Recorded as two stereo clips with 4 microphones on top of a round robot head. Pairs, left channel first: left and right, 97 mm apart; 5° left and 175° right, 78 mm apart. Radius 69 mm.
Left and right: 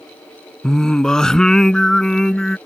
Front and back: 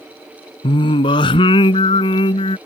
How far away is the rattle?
I don't hear a rattle.